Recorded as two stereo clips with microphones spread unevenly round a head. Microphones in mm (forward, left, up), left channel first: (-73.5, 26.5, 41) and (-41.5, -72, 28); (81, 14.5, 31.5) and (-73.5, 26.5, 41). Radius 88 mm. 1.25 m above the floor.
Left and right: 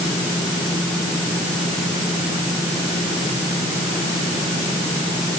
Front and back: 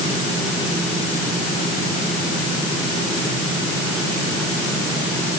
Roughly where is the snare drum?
I don't hear a snare drum.